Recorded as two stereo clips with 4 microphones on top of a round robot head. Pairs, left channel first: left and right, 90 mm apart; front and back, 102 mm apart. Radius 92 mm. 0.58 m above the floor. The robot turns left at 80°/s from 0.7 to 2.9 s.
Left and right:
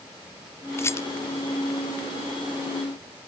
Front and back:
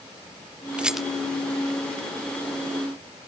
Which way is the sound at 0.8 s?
110° left.